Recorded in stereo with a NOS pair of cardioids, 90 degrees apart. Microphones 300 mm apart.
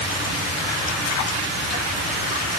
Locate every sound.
Only background noise.